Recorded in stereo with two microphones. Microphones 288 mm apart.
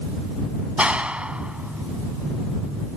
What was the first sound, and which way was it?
A clap, 5° right (ahead or behind).